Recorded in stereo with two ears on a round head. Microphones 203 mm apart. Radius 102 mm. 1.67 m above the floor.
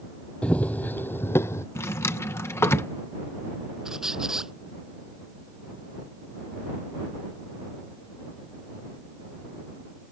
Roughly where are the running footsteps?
Centre.